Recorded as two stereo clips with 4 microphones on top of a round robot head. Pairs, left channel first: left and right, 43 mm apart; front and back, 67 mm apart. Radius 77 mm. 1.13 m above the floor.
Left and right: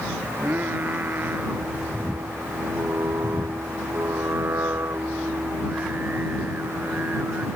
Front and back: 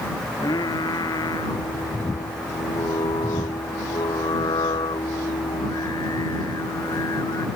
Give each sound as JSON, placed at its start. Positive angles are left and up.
{"t": 0.3, "sound": "singing", "azimuth_deg": -35}